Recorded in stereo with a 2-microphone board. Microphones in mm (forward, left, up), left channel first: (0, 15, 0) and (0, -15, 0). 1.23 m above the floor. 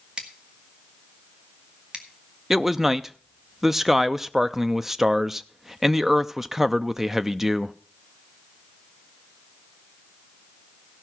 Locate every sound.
0.2 s scissors: 30° right (ahead or behind), 1.5 m
2.5 s a man speaking: 10° right (ahead or behind), 0.5 m